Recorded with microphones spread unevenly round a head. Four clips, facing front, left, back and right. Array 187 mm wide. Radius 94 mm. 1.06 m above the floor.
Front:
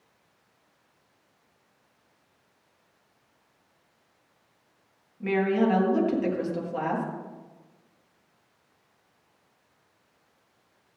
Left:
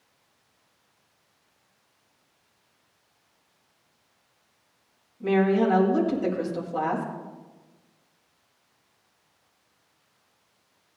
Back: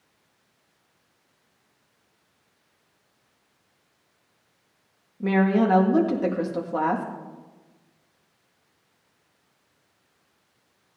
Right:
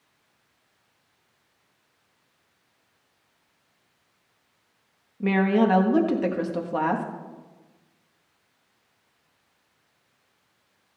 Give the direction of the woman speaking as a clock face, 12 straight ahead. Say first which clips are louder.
Even, back 3 dB; 4 o'clock.